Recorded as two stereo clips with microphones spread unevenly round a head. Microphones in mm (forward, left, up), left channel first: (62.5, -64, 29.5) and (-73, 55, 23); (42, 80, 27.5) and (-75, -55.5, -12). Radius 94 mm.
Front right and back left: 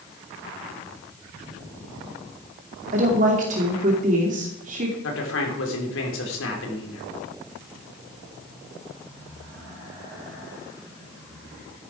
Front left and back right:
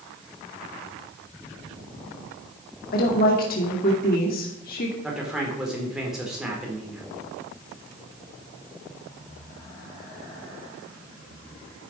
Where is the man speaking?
45° right, 4 m.